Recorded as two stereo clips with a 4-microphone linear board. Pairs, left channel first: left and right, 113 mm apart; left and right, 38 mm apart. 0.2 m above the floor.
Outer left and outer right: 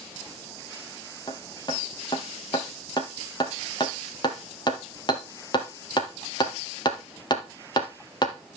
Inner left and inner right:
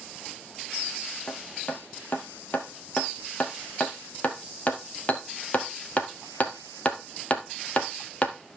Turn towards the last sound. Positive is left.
turn(degrees=40)  # may be behind; listen again after turning